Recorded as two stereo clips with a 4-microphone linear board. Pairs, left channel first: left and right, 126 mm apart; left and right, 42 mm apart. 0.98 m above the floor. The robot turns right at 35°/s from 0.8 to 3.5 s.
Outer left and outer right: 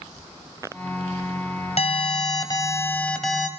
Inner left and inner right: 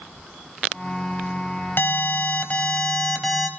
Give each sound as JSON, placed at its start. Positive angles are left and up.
{"t": 1.8, "sound": "an alarm", "azimuth_deg": 125, "distance_m": 3.5}